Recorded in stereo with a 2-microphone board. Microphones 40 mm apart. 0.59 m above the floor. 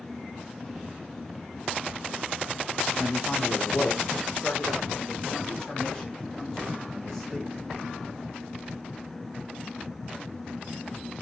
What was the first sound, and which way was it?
A man speaking, 60° left (ahead or behind).